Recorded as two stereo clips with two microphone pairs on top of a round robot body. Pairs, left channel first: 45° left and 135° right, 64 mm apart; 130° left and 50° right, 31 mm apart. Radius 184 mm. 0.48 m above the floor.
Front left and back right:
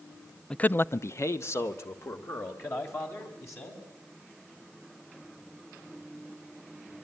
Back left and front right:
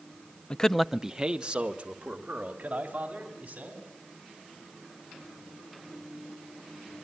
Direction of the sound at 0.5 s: 95° left.